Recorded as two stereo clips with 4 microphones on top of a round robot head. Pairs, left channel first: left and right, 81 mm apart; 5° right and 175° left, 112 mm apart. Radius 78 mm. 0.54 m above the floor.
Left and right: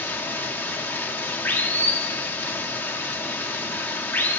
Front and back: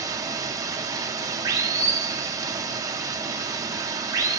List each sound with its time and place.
0.0 s running water: 140° left, 0.8 m